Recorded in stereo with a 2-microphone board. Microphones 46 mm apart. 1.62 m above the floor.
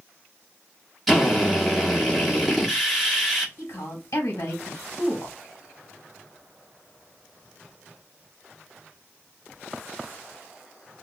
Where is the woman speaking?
80° left, 1.6 m.